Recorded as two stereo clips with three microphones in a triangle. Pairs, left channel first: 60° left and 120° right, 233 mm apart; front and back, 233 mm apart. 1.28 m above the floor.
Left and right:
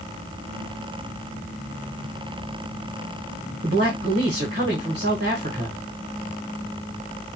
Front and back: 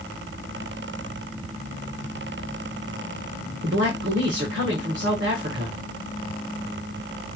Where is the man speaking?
155° right, 1.0 m.